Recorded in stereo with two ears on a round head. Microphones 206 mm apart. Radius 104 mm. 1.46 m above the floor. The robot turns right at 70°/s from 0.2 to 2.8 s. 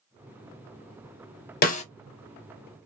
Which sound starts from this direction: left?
A snare drum, at 1.6 s.